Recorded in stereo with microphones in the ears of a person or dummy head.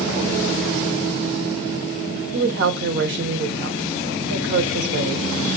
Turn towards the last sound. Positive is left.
turn(degrees=-60)  # may be behind; listen again after turning